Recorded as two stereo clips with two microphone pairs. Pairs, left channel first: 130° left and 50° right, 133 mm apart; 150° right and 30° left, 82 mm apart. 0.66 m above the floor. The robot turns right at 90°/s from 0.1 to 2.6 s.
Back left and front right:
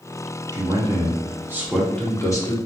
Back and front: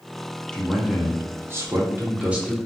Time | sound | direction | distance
0.5 | a man speaking | 80° right | 0.8 m